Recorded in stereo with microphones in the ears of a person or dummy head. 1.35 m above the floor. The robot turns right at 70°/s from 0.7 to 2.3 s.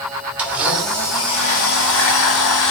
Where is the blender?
10° right, 0.5 m; by 2.7 s 105° left, 0.5 m.